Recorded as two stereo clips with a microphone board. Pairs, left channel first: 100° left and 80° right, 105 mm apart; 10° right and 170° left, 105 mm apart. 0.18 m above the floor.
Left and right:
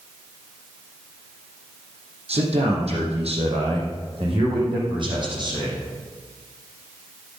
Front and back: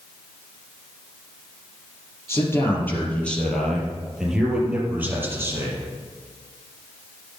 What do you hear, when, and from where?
2.3 s a man speaking: 75° right, 5 m; by 5.8 s 130° right, 5 m